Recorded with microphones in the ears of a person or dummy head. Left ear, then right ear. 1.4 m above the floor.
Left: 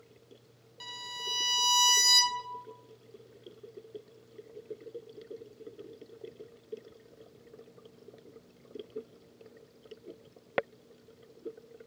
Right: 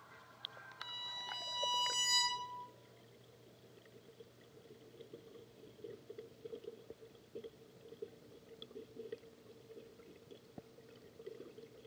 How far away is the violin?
About 0.8 m.